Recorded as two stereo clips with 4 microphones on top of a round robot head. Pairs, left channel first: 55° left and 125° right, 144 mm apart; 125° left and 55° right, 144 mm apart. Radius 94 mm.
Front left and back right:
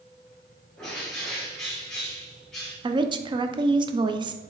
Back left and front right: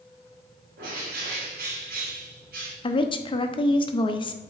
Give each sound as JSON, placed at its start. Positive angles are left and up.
{"t": 0.8, "sound": "a bird", "azimuth_deg": -30, "distance_m": 2.0}
{"t": 2.8, "sound": "a woman speaking", "azimuth_deg": 180, "distance_m": 0.8}